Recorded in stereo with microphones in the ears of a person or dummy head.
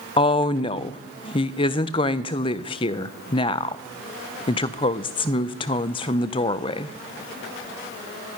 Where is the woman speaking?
25° left (ahead or behind), 0.5 m.